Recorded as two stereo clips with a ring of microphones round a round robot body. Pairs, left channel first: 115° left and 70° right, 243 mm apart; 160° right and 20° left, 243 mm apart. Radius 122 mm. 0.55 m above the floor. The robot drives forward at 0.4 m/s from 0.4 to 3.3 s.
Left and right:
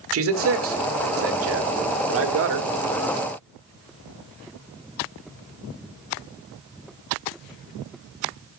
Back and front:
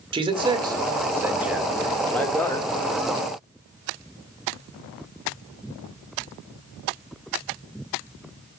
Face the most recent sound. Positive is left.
turn(degrees=-100)